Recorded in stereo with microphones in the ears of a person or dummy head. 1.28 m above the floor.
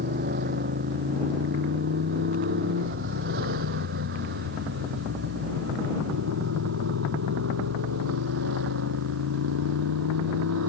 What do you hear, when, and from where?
0.0 s a motorcycle: 45° right (ahead or behind); by 10.7 s 75° right (ahead or behind)